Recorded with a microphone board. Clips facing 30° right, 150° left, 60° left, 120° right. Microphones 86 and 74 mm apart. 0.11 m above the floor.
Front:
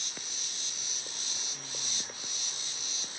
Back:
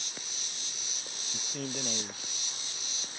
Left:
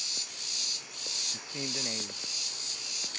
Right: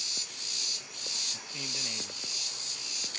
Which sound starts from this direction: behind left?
A man speaking, at 1.3 s.